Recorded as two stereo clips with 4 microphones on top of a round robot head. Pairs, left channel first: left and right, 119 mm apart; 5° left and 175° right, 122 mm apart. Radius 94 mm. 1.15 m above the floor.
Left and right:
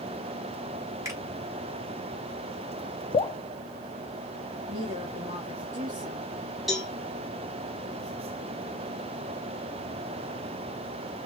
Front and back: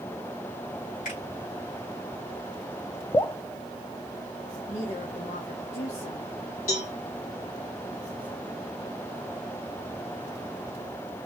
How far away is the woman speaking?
About 2 m.